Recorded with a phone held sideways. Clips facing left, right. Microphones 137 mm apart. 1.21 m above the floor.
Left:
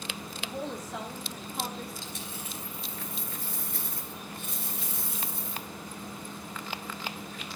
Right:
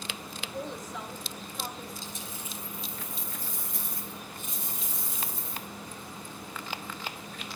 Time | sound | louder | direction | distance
0.4 | a woman speaking | left 1 dB | 75° left (ahead or behind) | 3.5 m
2.0 | a dropped coin | left 1 dB | 65° left (ahead or behind) | 3 m